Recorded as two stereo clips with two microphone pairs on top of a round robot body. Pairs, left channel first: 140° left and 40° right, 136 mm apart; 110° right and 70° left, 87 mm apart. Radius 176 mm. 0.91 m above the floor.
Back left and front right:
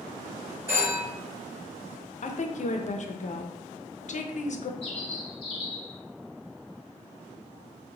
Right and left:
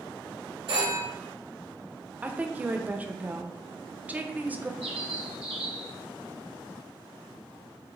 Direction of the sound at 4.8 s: 90° left.